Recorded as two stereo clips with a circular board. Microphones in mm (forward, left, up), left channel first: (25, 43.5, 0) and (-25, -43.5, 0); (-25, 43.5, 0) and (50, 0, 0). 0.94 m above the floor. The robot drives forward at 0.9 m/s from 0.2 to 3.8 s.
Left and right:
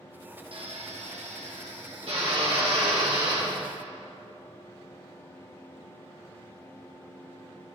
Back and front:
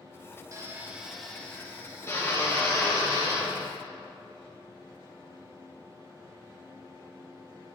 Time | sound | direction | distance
0.5 | a drill | 85° right | 0.8 m